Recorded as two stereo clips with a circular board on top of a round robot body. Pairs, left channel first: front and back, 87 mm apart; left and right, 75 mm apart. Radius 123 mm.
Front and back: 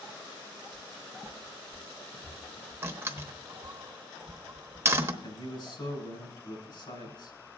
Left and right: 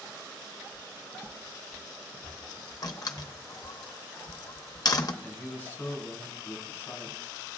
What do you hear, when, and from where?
0.7 s footsteps: 60° right, 0.9 m; by 3.8 s straight ahead, 2.0 m
2.8 s a door slam: 120° left, 0.9 m
5.2 s a man speaking: 20° left, 5 m